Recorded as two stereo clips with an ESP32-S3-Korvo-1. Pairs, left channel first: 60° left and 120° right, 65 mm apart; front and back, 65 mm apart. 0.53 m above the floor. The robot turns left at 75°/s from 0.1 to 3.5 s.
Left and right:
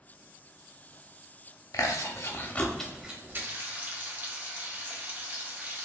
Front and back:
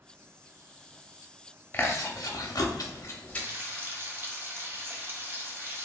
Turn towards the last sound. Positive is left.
turn(degrees=-160)